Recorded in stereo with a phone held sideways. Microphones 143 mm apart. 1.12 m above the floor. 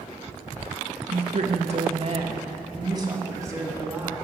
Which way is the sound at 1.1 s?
60° right (ahead or behind).